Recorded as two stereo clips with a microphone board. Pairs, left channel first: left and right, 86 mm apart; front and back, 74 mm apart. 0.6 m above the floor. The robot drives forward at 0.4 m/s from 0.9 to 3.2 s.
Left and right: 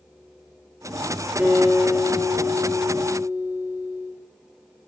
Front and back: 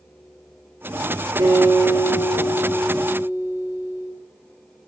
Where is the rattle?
No rattle in this recording.